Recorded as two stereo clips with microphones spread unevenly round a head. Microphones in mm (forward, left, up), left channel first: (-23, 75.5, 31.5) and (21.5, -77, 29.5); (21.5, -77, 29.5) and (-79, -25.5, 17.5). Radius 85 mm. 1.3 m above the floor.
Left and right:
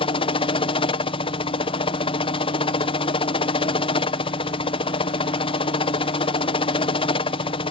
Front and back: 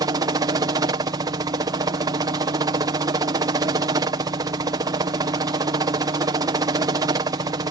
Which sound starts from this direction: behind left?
A helicopter, at 0.0 s.